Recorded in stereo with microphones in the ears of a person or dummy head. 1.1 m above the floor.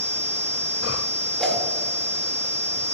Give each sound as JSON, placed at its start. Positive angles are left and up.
{"t": 1.4, "sound": "a whoosh", "side_deg": 0, "distance_m": 1.7}